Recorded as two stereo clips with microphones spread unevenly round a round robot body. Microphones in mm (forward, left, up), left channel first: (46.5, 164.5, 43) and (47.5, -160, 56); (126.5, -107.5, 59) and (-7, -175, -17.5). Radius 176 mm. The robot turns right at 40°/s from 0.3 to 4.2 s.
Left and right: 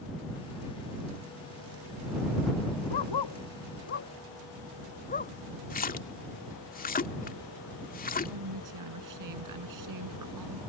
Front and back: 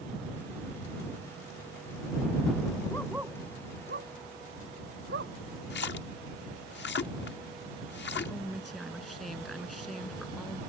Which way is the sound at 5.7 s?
25° left.